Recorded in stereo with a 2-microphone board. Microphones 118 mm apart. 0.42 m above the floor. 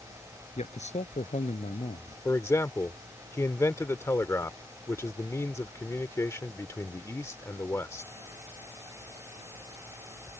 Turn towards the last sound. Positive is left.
turn(degrees=25)  # may be behind; listen again after turning